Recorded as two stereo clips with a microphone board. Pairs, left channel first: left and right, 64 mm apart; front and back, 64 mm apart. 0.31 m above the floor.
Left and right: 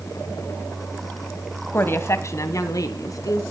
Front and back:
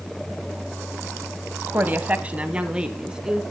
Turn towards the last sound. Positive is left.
turn(degrees=100)